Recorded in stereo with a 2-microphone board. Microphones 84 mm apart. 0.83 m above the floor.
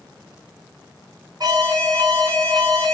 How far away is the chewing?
No chewing in this recording.